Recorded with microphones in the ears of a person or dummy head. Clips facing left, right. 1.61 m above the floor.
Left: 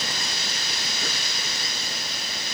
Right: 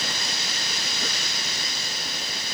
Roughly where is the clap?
No clap in this recording.